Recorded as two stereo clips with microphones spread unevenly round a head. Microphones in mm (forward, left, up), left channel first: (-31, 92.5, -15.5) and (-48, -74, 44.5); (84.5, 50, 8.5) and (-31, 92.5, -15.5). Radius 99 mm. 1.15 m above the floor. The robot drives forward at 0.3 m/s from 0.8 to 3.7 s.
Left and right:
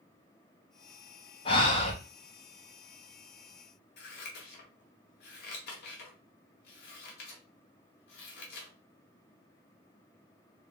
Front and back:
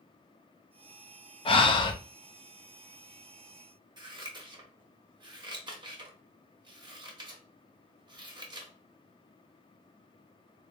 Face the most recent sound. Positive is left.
turn(degrees=110)